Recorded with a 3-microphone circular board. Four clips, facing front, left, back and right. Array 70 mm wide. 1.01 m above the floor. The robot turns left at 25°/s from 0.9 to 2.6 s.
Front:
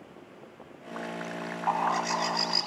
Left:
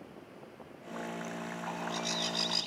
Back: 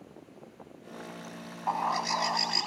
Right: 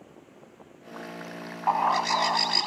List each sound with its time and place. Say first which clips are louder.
1.7 s a bird: right 16 dB, front 2 dB; 70° right; by 2.7 s 95° right